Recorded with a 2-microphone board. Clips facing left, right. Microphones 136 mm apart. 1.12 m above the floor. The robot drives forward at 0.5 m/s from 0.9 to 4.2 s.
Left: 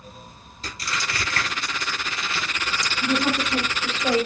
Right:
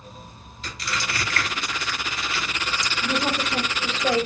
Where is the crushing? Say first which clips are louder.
Even; 40° left (ahead or behind), 2 m; by 3.5 s 25° left (ahead or behind), 3.5 m.